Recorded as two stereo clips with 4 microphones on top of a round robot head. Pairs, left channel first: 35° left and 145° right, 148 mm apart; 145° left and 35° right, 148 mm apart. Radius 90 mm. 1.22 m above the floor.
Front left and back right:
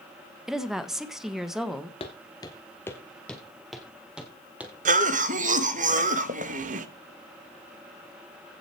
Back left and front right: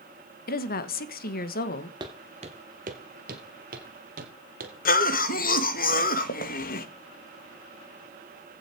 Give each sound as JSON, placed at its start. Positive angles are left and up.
{"t": 0.5, "sound": "a woman speaking", "azimuth_deg": 125, "distance_m": 1.5}
{"t": 2.0, "sound": "footsteps", "azimuth_deg": 10, "distance_m": 1.3}
{"t": 4.8, "sound": "a cough", "azimuth_deg": 175, "distance_m": 1.6}